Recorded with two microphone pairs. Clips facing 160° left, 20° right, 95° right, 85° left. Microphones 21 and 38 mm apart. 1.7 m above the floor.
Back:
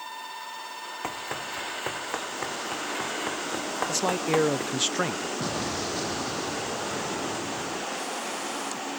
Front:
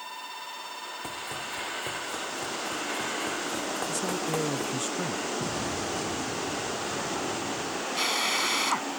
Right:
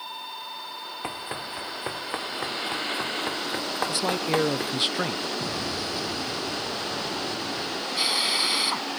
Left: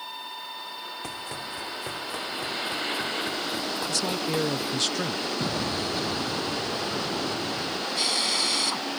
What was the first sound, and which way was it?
Running footsteps, 155° right.